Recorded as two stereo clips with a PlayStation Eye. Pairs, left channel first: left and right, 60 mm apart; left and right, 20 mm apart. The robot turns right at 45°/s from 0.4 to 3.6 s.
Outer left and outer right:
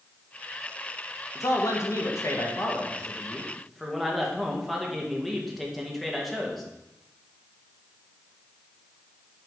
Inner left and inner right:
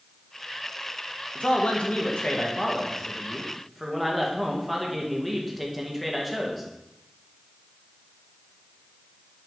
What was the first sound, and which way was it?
A man speaking, 80° left.